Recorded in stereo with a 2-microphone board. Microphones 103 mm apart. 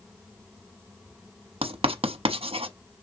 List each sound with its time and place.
1.6 s writing: 65° right (ahead or behind), 0.7 m